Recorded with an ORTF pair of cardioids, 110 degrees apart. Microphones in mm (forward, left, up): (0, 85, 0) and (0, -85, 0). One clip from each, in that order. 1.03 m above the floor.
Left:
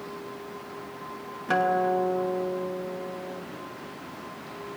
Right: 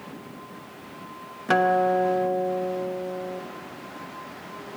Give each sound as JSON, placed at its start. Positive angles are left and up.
{"t": 1.5, "sound": "a guitar", "azimuth_deg": -25, "distance_m": 0.9}